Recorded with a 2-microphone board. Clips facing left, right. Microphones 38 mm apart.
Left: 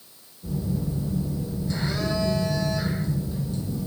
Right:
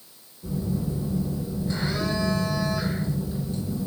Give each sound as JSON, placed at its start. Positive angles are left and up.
{"t": 0.4, "sound": "a phone buzzing", "side_deg": -20, "distance_m": 1.4}